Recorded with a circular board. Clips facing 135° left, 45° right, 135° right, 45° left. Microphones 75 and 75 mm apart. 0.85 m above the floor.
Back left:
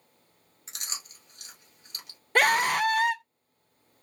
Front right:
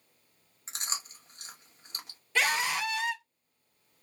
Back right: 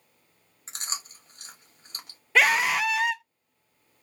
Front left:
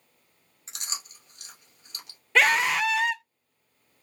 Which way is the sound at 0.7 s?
95° right.